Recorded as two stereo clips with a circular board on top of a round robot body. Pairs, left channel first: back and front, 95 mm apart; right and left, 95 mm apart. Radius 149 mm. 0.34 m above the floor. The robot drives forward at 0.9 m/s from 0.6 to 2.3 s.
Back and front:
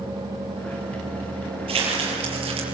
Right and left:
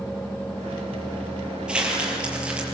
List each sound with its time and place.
1.7 s crumpling: 10° left, 7.5 m; by 2.6 s 15° left, 7 m